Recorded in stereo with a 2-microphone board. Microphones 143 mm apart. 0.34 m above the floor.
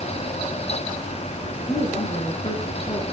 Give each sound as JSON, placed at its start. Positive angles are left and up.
{"t": 1.7, "sound": "a woman speaking", "side_deg": 40, "distance_m": 4.5}